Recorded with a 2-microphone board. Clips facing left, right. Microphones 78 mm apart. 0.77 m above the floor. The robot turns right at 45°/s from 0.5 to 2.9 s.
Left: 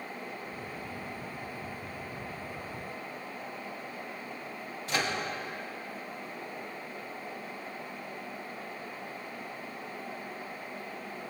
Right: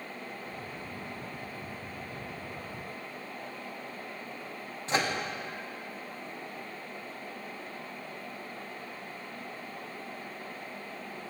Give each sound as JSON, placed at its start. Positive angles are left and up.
{"t": 4.9, "sound": "a microwave", "side_deg": -30, "distance_m": 1.0}